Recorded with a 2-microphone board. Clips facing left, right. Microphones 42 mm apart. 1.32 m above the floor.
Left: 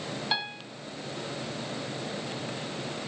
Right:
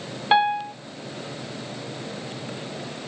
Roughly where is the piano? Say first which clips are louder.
Right 17 dB; right.